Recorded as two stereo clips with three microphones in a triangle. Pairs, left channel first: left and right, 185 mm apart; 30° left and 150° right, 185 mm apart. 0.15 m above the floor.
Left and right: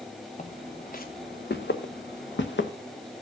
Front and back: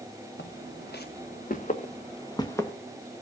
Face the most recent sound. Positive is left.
turn(degrees=105)